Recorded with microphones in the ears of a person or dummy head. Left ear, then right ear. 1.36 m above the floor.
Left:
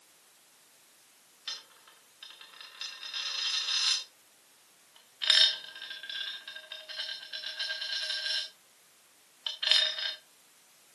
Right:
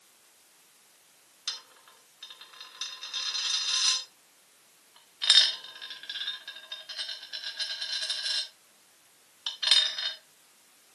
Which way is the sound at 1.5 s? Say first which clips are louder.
Right 3 dB; centre (ahead or behind).